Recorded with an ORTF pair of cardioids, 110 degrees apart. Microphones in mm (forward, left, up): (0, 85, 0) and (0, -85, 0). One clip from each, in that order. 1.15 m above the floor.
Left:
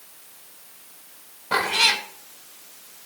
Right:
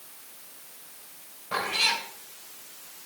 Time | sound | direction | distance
1.5 | a cat meowing | 55° left | 1.5 m